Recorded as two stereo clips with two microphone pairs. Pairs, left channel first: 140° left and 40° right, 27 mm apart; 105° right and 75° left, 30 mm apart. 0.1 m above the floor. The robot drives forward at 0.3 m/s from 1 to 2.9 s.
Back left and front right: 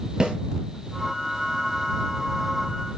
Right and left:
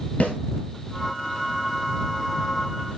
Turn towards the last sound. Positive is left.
turn(degrees=-130)